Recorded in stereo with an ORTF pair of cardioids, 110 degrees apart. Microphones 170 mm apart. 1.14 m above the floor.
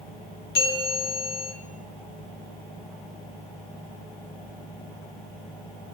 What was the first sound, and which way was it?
A bell, 65° left.